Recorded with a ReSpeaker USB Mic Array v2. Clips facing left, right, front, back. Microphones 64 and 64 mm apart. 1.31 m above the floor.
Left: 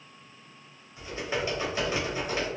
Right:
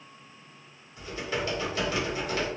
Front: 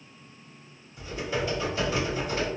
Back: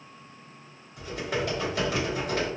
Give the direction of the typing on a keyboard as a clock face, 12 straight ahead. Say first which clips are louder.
Left 1 dB, even; 7 o'clock.